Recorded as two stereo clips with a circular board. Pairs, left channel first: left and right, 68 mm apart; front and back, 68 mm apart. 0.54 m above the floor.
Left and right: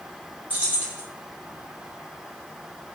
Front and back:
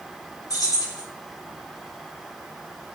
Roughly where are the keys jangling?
Ahead right.